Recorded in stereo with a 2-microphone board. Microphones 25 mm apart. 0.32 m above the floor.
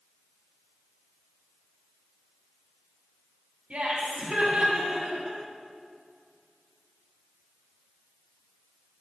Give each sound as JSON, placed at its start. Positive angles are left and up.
{"t": 3.7, "sound": "laughter", "side_deg": -45, "distance_m": 2.5}